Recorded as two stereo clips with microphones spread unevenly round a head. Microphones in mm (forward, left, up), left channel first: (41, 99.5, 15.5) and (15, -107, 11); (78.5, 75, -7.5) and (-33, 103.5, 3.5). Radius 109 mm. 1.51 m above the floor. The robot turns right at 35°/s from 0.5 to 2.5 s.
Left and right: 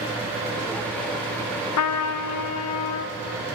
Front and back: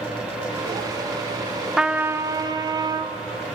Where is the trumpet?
80° left, 0.5 m; by 3.1 s 105° left, 0.5 m.